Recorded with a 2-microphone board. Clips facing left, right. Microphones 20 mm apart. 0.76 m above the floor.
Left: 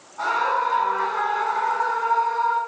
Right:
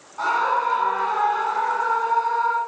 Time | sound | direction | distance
0.2 | a scream | 20° right (ahead or behind) | 7.5 m